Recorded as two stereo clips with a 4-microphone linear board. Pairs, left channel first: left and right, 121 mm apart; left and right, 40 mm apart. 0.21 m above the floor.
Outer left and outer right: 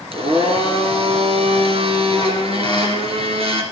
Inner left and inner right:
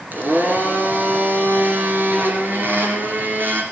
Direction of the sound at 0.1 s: 60° right (ahead or behind).